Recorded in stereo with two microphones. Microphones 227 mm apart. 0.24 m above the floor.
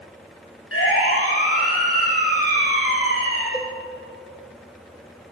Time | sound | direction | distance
0.7 | a siren | 75° left (ahead or behind) | 9.5 m
3.5 | a cowbell | centre (ahead or behind) | 3 m